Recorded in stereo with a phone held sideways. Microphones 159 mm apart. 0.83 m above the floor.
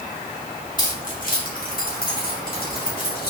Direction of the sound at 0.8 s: 55° left (ahead or behind).